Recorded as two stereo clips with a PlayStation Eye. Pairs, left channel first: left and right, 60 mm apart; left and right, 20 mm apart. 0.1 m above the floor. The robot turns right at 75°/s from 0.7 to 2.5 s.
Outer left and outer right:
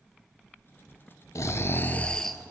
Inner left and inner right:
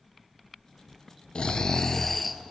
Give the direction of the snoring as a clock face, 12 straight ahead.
9 o'clock.